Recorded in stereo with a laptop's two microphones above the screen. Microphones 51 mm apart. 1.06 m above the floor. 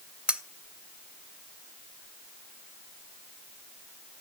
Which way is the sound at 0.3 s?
25° right (ahead or behind).